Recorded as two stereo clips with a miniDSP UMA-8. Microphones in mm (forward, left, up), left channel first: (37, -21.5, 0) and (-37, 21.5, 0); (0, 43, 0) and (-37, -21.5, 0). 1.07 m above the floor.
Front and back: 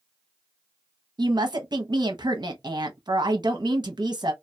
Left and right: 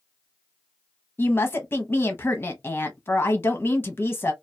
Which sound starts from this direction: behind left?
A woman speaking, at 1.2 s.